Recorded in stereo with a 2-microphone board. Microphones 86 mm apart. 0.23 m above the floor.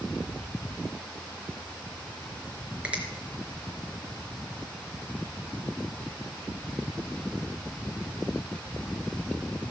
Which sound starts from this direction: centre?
A finger snap, at 2.8 s.